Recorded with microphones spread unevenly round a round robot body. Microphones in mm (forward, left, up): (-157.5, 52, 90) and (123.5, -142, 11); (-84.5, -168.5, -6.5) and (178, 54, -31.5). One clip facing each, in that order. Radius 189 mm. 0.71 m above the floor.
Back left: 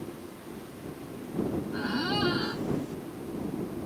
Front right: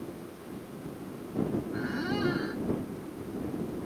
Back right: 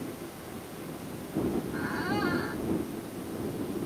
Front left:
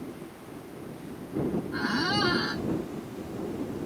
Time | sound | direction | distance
1.7 | a squeak | 85° left | ?